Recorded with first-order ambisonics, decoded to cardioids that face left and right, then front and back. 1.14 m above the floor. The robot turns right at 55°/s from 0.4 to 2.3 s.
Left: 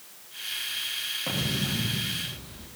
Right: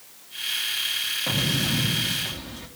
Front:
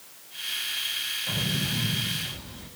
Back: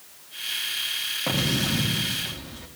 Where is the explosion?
175° right, 2.5 m; by 2.7 s 120° right, 2.5 m.